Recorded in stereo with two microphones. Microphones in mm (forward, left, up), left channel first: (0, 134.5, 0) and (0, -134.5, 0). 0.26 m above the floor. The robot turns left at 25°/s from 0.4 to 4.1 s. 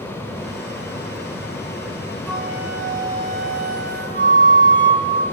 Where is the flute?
Straight ahead, 4.5 m; by 5.2 s 45° right, 4.5 m.